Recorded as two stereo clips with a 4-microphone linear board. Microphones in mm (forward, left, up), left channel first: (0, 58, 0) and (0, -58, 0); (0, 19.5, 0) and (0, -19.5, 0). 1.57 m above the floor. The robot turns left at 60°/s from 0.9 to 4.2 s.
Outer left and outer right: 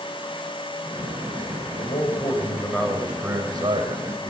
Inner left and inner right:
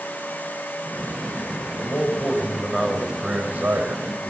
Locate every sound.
1.8 s a man speaking: 65° left, 7.5 m; by 4.3 s 80° right, 7.5 m